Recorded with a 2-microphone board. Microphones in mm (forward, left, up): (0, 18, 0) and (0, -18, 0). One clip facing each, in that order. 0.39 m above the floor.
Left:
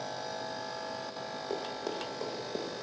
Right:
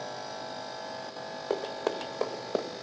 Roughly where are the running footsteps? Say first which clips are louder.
Right 6 dB; right.